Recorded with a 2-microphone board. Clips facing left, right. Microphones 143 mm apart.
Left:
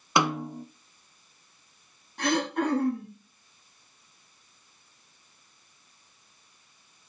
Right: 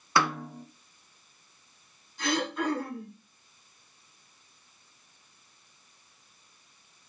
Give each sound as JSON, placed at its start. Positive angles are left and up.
{"t": 0.2, "sound": "a snare drum", "side_deg": 20, "distance_m": 0.6}
{"t": 2.2, "sound": "throat clearing", "side_deg": 70, "distance_m": 7.0}